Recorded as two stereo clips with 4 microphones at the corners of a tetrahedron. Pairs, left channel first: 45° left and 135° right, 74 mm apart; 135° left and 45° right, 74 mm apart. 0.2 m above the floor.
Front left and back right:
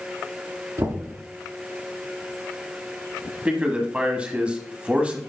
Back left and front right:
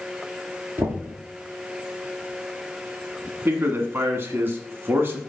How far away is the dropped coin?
No dropped coin in this recording.